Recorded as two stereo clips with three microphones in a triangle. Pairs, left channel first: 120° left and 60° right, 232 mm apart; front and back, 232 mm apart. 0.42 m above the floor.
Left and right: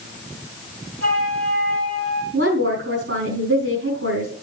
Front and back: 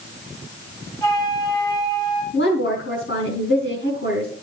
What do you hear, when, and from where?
1.0 s a flute: 75° right, 5 m
2.3 s a woman speaking: 30° right, 5.5 m